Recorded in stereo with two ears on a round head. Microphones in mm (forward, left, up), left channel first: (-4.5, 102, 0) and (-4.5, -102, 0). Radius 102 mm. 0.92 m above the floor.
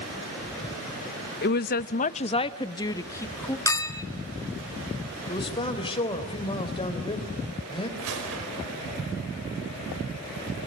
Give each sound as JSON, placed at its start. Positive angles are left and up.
{"t": 1.4, "sound": "a woman speaking", "side_deg": 45, "distance_m": 0.7}
{"t": 3.7, "sound": "a clink", "side_deg": 15, "distance_m": 1.3}
{"t": 5.3, "sound": "a man speaking", "side_deg": 25, "distance_m": 3.5}
{"t": 8.0, "sound": "a gunshot", "side_deg": -70, "distance_m": 4.5}